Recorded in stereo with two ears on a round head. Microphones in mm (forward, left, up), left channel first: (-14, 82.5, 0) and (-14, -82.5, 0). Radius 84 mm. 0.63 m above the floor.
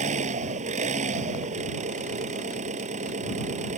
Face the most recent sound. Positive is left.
turn(degrees=-40)  # may be behind; listen again after turning